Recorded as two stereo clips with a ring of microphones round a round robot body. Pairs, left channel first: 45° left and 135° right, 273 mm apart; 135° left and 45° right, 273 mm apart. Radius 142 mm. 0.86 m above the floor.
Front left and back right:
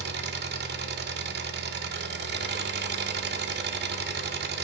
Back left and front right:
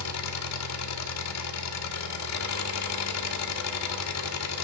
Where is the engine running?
170° left, 1.6 m.